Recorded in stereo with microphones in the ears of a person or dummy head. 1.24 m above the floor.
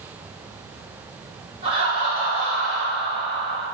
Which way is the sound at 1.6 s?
40° right (ahead or behind).